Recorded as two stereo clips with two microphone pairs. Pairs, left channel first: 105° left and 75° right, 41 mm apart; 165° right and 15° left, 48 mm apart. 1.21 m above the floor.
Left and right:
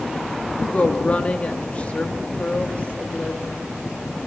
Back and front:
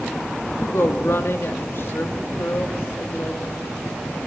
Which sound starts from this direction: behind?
A woman speaking, at 0.6 s.